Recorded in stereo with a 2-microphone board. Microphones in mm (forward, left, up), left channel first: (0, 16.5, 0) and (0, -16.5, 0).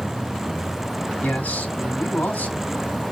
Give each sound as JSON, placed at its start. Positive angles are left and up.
{"t": 1.2, "sound": "a man speaking", "side_deg": 70, "distance_m": 4.0}